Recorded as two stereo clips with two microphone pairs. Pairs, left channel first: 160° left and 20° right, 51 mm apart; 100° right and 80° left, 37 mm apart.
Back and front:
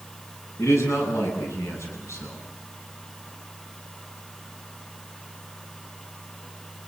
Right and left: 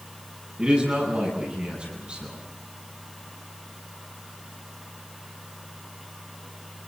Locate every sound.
0.6 s a man speaking: 140° left, 9 m